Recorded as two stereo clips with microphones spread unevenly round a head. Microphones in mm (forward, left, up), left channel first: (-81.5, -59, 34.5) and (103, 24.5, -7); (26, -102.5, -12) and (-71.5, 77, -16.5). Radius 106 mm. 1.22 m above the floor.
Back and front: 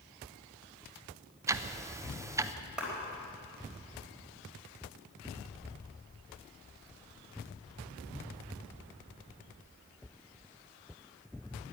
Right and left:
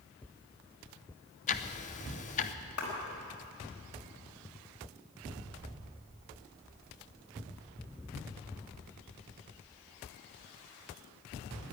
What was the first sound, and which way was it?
Ticking, 25° right.